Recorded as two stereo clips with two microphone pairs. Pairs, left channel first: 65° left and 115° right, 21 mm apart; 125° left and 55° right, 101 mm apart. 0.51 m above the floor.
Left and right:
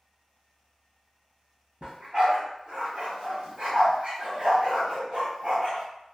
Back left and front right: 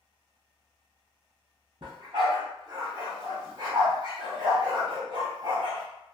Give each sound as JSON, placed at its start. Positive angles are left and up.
{"t": 1.8, "sound": "a dog barking", "azimuth_deg": -95, "distance_m": 1.3}